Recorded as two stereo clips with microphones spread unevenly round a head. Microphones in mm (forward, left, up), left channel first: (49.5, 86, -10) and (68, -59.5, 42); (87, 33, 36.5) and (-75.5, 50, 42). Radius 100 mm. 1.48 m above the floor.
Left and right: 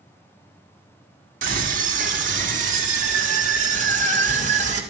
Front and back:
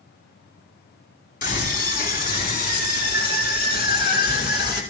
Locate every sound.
1.4 s a scream: 50° right, 4.5 m; by 4.8 s 45° right, 7 m